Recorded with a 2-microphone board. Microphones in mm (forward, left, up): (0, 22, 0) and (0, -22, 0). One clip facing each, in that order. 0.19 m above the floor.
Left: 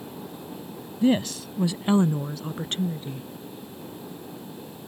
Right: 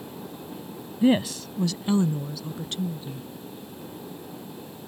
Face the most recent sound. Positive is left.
turn(degrees=50)  # may be behind; listen again after turning